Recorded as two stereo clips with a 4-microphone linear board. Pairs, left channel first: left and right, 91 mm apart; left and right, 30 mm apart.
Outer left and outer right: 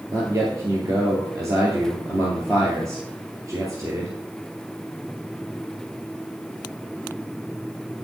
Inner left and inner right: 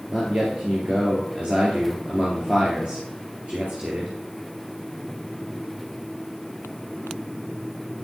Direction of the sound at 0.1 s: 35° right (ahead or behind).